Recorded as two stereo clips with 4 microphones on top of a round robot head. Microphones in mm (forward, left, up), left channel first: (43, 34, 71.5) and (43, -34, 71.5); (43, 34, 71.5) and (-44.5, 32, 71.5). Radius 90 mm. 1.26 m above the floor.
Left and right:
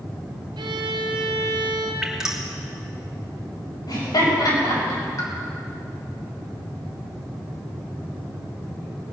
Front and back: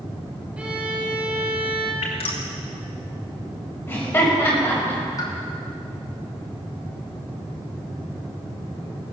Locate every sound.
0.6 s a violin: 100° right, 1.7 m
2.0 s dripping: 10° right, 3 m
3.9 s laughter: 70° left, 7.5 m
5.2 s a pop: 50° left, 3 m